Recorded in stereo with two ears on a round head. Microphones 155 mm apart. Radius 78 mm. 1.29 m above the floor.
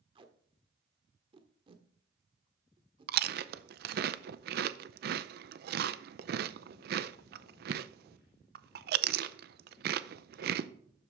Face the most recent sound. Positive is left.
turn(degrees=-60)  # may be behind; listen again after turning